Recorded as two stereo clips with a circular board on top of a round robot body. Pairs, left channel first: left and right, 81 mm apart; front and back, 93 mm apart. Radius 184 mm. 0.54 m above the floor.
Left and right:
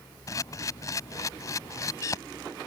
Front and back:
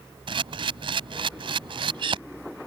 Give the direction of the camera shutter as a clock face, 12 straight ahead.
7 o'clock.